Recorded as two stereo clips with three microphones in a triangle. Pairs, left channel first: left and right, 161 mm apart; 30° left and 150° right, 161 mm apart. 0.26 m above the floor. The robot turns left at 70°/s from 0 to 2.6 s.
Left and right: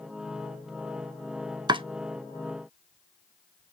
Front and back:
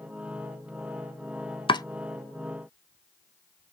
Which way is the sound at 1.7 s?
30° right.